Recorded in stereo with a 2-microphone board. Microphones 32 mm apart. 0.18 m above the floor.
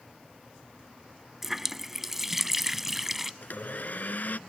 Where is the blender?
60° left (ahead or behind).